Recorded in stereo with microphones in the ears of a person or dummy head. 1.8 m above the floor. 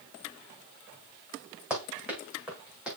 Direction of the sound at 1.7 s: 10° right (ahead or behind).